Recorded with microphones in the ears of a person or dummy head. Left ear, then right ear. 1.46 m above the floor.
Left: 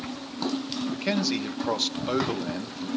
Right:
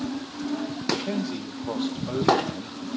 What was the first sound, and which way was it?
A man speaking, 65° left (ahead or behind).